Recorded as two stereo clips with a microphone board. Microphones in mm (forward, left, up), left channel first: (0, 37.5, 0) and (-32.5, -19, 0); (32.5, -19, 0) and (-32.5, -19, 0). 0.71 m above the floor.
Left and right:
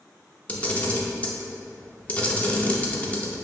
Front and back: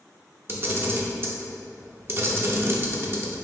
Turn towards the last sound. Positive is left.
turn(degrees=130)